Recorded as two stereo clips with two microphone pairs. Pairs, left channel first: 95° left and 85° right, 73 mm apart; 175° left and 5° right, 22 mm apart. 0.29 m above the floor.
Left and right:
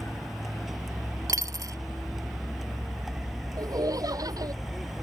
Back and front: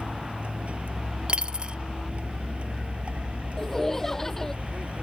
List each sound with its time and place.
0.0 s a vehicle: 5° left
1.3 s a dropped coin: 45° right
3.6 s laughter: 115° right